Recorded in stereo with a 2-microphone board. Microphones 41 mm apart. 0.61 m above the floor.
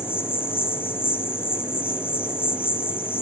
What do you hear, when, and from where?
0.0 s an insect: 65° left (ahead or behind), 3.5 m